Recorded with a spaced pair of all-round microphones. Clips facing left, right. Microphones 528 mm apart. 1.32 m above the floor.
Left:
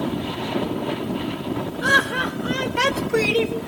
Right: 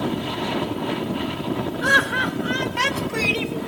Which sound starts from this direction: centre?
Laughter, at 1.8 s.